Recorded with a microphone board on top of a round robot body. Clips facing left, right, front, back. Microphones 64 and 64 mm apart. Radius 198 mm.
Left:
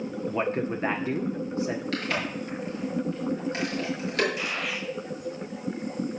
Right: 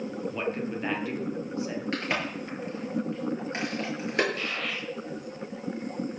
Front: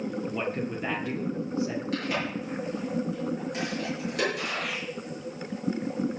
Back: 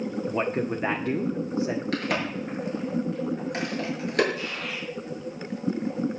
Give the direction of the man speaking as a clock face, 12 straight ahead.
7 o'clock.